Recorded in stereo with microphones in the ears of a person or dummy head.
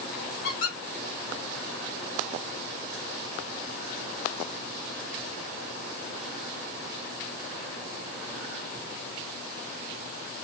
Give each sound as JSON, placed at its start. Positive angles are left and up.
{"t": 0.4, "sound": "a squeak", "side_deg": 55, "distance_m": 1.6}